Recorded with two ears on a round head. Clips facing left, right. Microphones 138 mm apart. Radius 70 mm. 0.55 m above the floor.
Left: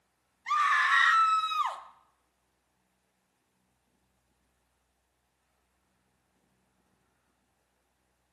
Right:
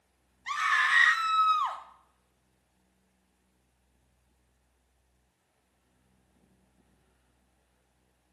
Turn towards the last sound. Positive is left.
turn(degrees=20)  # may be behind; listen again after turning